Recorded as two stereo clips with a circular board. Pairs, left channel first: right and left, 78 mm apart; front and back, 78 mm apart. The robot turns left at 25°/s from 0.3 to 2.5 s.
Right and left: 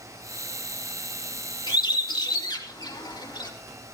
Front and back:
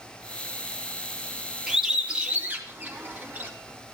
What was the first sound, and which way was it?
A bird, 90° right.